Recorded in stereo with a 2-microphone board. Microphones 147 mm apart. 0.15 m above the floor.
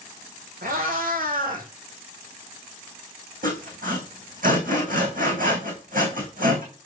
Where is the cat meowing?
80° right, 3.5 m.